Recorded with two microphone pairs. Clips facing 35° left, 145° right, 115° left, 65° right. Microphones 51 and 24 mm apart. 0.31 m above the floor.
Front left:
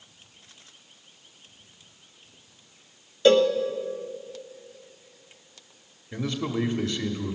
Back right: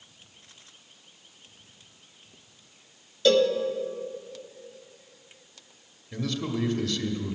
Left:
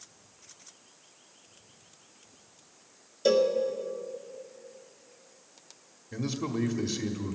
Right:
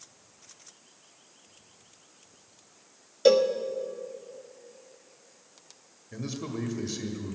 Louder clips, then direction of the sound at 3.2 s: Front left 3 dB, right 3 dB; 20° right.